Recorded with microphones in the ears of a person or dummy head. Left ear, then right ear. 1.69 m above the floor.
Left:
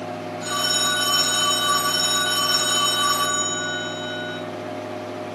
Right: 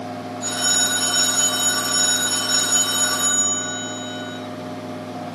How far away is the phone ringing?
About 4.5 m.